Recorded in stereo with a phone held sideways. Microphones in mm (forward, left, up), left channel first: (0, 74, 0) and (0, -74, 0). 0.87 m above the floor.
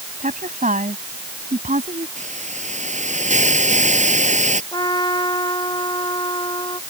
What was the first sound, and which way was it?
A woman speaking, 60° right (ahead or behind).